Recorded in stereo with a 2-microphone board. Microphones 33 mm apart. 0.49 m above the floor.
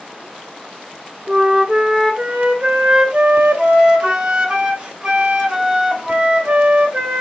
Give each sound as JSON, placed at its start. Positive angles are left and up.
{"t": 1.3, "sound": "a flute", "side_deg": -30, "distance_m": 0.7}